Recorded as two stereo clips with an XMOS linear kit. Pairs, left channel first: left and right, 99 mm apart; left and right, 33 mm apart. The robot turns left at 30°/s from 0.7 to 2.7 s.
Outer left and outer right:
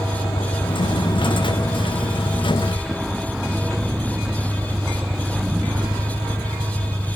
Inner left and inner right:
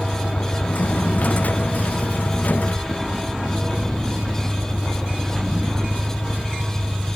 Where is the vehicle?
60° left; by 7.2 s straight ahead.